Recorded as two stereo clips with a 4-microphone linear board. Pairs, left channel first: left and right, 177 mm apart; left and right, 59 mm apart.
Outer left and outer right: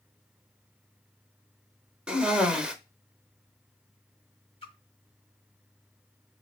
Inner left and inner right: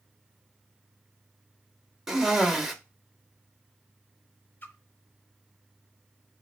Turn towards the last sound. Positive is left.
turn(degrees=30)  # may be behind; listen again after turning